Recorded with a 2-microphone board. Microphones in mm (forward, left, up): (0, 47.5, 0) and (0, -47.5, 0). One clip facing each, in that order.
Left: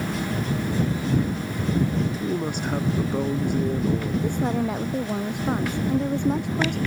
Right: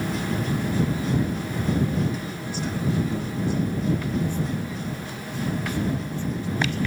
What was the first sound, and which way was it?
A woman speaking, 55° left (ahead or behind).